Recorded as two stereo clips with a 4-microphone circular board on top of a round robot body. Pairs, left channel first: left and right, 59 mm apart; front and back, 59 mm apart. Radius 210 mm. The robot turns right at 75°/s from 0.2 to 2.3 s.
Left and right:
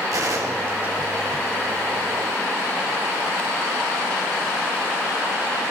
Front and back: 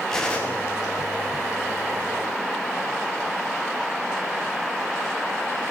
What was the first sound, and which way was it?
A gunshot, 80° right.